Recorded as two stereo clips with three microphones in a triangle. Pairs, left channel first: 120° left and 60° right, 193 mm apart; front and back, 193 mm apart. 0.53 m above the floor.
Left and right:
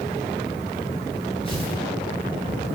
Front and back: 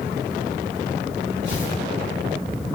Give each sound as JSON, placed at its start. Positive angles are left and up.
{"t": 1.4, "sound": "tearing paper", "azimuth_deg": 180, "distance_m": 9.0}